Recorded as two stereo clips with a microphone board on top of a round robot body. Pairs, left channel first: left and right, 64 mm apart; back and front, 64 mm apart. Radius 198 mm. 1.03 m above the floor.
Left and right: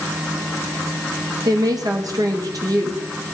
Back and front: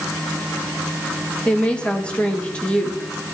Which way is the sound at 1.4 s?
105° right.